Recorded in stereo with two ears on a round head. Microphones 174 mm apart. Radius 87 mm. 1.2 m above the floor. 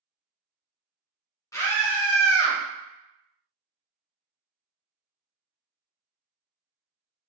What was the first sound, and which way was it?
A scream, 15° left (ahead or behind).